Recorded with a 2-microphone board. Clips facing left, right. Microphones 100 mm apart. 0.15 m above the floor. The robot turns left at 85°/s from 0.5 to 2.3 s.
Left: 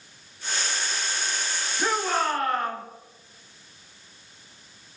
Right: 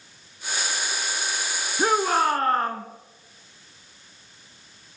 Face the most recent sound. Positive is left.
turn(degrees=-120)